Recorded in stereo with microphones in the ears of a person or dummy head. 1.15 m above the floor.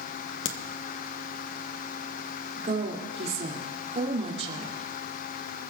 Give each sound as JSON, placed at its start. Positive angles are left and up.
{"t": 0.5, "sound": "a crack", "side_deg": 65, "distance_m": 1.0}
{"t": 2.6, "sound": "a woman speaking", "side_deg": -40, "distance_m": 2.5}